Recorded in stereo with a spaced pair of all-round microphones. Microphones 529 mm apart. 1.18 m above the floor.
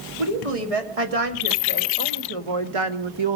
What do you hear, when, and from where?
0.2 s a woman speaking: 85° right, 2.5 m; by 3.4 s 50° right (ahead or behind), 1.1 m